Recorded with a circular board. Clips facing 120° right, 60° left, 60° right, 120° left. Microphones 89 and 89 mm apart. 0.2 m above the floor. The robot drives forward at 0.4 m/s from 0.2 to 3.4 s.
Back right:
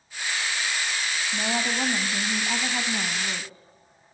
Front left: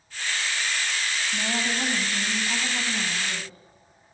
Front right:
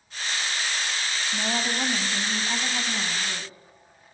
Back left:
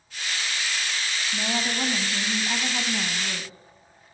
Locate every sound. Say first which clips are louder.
1.3 s a woman speaking: back right 2 dB, even; 125° right, 1.3 m; by 3.5 s 165° right, 1.7 m